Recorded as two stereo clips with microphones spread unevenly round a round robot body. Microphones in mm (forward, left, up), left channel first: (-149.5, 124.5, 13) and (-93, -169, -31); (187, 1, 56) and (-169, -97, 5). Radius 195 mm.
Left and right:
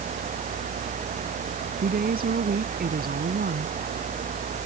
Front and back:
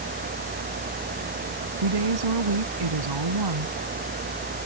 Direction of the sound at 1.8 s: 140° right.